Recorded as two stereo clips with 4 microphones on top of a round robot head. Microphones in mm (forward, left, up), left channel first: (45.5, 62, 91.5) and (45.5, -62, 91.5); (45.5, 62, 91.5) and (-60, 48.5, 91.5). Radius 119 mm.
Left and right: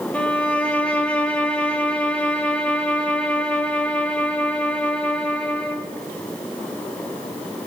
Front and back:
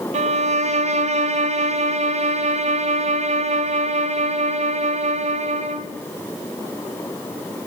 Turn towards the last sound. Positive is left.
turn(degrees=170)